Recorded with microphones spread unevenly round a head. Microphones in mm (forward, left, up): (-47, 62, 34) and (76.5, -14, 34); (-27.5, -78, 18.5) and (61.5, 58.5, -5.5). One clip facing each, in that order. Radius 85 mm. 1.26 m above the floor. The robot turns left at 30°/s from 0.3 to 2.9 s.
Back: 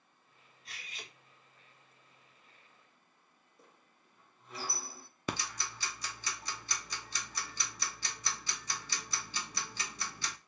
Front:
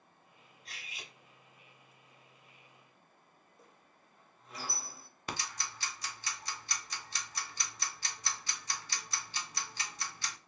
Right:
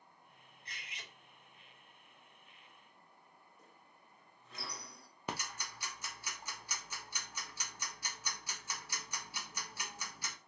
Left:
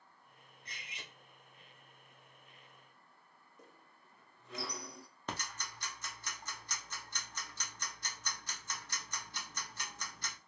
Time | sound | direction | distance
0.7 | cutlery clinking | 60° left | 1.4 m
3.6 | a squeak | 60° left | 0.8 m
5.3 | ticking | 160° left | 0.7 m